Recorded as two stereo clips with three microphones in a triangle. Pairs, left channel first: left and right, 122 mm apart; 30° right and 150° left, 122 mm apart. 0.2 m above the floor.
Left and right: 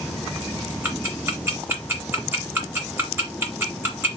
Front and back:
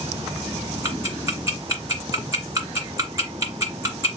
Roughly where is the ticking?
Behind right.